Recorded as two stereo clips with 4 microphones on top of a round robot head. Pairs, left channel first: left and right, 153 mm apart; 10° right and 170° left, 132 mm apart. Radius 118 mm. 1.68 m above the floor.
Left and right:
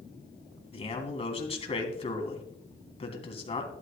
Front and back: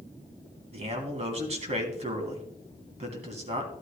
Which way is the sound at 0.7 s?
140° left.